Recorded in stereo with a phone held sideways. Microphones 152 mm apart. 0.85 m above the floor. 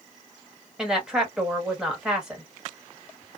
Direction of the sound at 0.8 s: 5° right (ahead or behind).